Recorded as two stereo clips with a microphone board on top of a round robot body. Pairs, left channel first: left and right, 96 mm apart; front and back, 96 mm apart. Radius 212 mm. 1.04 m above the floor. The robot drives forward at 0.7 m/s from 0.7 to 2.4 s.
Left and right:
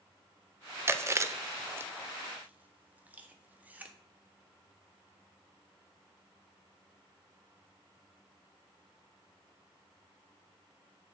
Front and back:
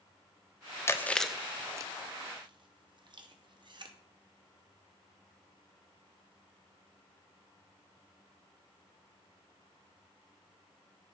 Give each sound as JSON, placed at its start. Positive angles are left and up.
{"t": 0.9, "sound": "chewing", "azimuth_deg": -45, "distance_m": 0.8}